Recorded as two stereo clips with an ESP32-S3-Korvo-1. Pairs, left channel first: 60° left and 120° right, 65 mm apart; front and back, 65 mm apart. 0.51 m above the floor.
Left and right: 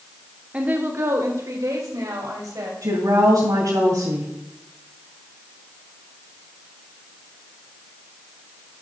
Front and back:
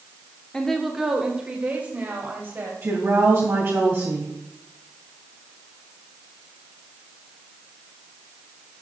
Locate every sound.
0.5 s a woman speaking: 70° right, 1.0 m; by 2.7 s 125° right, 3 m
2.8 s a woman speaking: 130° right, 2.5 m